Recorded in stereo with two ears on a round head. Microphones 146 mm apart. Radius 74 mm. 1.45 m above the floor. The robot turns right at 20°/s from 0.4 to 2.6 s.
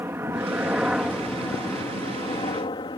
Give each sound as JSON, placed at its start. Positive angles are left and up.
{"t": 0.0, "sound": "a helicopter", "side_deg": -15}